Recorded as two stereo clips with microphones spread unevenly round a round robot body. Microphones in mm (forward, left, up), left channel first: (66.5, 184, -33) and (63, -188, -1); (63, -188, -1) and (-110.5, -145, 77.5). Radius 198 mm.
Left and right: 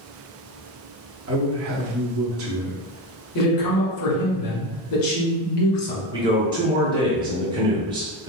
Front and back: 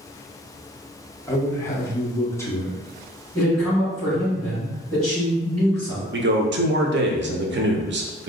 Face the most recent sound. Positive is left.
turn(degrees=-170)